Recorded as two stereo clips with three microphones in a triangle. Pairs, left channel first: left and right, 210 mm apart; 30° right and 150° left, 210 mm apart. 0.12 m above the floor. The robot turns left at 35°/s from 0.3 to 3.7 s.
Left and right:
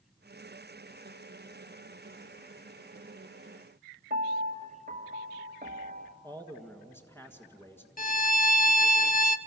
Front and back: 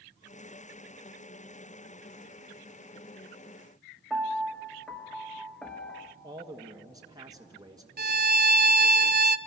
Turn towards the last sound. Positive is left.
turn(degrees=125)